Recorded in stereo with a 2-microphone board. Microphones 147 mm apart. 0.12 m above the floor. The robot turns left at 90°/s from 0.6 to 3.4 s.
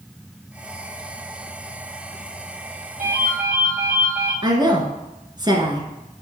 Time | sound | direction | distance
3.0 | a ringtone | 65° right | 3.5 m
4.4 | a woman speaking | 30° right (ahead or behind) | 1.3 m